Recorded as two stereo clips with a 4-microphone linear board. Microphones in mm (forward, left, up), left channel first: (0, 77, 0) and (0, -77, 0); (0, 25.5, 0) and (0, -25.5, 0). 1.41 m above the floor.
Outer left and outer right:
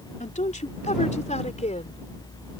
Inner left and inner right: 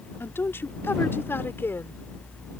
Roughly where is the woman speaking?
Left.